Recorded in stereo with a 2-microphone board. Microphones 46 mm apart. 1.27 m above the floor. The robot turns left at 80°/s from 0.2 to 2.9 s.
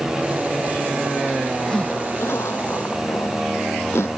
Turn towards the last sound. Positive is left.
turn(degrees=65)  # may be behind; listen again after turning